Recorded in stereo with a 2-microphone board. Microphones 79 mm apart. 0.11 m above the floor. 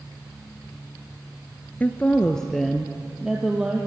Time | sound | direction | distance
1.8 | a woman speaking | 20° left (ahead or behind) | 1.3 m